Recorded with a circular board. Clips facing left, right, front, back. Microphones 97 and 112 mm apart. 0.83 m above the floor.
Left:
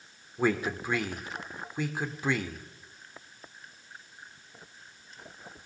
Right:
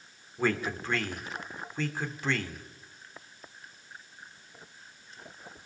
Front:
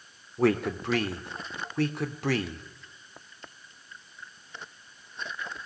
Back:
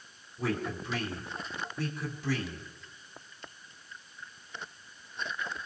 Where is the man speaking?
10° left, 2.5 m.